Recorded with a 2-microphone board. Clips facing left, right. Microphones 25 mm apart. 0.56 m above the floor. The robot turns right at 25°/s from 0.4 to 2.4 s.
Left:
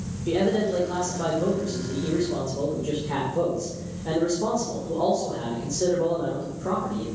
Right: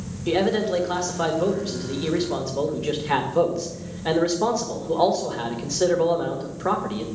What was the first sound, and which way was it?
A man speaking, 140° right.